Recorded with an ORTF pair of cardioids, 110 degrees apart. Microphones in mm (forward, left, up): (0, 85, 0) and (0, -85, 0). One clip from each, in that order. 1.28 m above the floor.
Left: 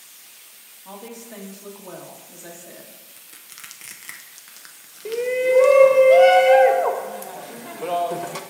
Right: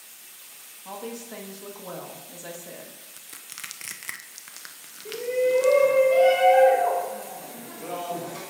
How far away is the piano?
I don't hear a piano.